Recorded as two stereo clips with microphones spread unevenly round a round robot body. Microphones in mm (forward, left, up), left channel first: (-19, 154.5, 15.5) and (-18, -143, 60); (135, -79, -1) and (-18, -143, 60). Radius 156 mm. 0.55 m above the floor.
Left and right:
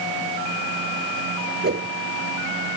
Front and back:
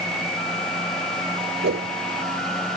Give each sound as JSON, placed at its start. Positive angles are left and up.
{"t": 1.6, "sound": "a whoosh", "azimuth_deg": -150}